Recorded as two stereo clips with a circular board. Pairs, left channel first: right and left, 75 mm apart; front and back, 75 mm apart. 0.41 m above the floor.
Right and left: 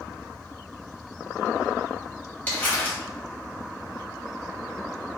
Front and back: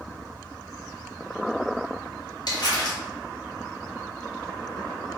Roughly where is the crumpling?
Ahead.